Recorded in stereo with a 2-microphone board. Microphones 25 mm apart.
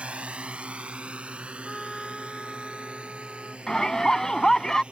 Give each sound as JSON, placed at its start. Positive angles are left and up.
{"t": 0.0, "sound": "a drone", "side_deg": -55}
{"t": 1.6, "sound": "a trumpet", "side_deg": -5}
{"t": 3.7, "sound": "a shout", "side_deg": 25}